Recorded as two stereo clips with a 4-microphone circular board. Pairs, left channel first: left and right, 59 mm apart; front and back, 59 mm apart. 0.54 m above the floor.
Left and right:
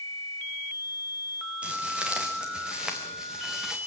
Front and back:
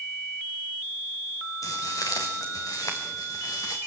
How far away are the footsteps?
About 2.5 m.